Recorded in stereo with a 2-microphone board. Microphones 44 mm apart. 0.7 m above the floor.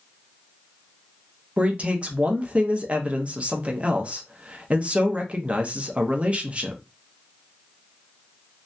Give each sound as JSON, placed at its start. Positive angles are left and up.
{"t": 1.6, "sound": "a man speaking", "side_deg": -30, "distance_m": 0.6}